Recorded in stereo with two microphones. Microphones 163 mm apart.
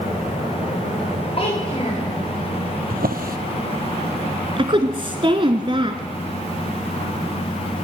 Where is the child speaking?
35° left (ahead or behind), 9 m.